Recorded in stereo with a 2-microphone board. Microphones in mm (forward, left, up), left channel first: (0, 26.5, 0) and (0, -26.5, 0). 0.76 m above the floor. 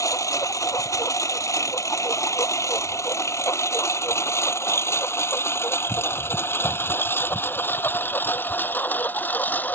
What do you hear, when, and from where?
0.0 s a lawn mower: 80° left; by 9.8 s 35° left (ahead or behind)